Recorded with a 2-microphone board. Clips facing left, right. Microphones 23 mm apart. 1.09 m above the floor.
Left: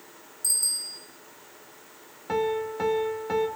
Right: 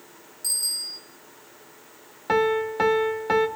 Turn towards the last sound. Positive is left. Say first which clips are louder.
# right 5 dB
turn(degrees=-40)  # may be behind; listen again after turning